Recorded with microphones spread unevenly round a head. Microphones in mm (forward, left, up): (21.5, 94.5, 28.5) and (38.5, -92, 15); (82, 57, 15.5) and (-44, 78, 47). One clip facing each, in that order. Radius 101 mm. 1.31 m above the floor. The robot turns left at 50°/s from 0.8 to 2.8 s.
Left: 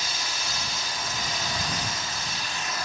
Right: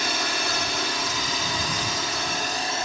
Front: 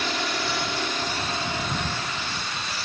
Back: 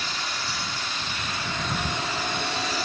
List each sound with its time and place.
0.0 s a drone: 50° right; by 2.9 s 150° right